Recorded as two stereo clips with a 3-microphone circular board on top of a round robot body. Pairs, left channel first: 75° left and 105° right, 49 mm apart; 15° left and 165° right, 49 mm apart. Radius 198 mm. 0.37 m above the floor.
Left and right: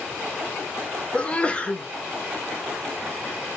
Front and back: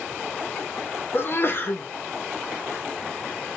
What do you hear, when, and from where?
1.1 s a sneeze: 20° left, 1.0 m